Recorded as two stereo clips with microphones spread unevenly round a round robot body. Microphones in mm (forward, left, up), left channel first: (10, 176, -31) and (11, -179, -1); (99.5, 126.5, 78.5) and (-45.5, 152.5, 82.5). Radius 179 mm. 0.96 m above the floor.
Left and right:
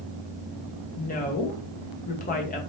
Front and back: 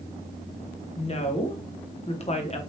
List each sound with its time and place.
1.0 s a woman speaking: 30° left, 1.2 m